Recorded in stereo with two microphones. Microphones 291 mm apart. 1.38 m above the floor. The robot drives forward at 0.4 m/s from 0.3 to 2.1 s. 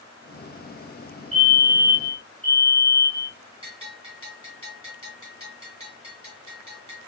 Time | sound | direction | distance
1.3 | a fire alarm | 55° left (ahead or behind) | 3 m
3.6 | a bell | 45° left (ahead or behind) | 3 m